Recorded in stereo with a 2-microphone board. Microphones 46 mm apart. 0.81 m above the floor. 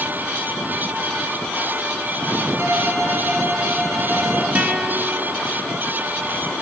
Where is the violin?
80° right, 7.5 m.